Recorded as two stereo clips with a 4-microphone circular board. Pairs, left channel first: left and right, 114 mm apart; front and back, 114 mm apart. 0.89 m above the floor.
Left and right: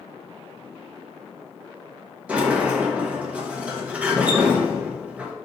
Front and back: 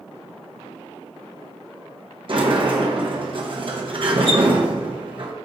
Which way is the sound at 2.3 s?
165° right.